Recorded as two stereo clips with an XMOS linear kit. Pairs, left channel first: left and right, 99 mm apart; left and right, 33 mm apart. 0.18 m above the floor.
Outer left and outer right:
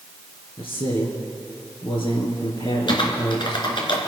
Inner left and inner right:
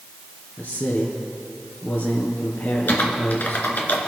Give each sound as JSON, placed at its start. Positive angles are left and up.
{"t": 0.6, "sound": "a man speaking", "side_deg": 60, "distance_m": 3.5}
{"t": 2.9, "sound": "typing on a keyboard", "side_deg": 60, "distance_m": 3.0}